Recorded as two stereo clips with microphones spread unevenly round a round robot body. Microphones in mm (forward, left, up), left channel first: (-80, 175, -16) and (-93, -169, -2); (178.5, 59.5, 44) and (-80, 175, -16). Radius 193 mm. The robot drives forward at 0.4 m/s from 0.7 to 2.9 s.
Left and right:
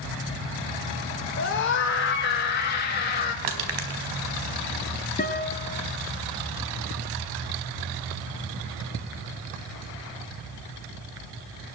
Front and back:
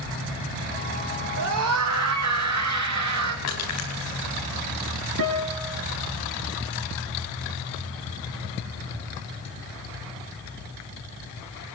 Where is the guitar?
155° left, 4 m.